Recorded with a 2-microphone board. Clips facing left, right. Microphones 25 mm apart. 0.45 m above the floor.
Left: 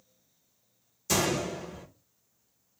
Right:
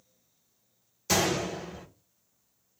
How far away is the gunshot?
About 1.2 m.